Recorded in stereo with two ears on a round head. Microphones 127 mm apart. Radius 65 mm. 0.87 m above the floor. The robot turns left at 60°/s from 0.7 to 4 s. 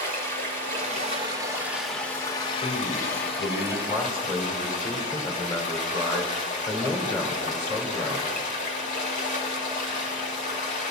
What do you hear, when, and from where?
0.0 s running water: 110° right, 2.5 m; by 10.9 s 50° left, 2.5 m
2.6 s a man speaking: 110° left, 2.5 m; by 8.4 s 25° left, 2.5 m